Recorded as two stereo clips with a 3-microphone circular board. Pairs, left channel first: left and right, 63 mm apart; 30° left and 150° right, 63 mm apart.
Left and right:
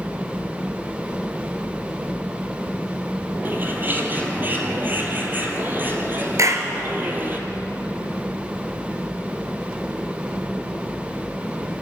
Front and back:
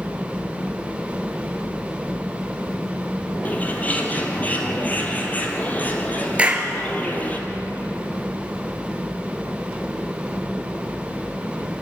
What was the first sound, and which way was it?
A bird, 35° right.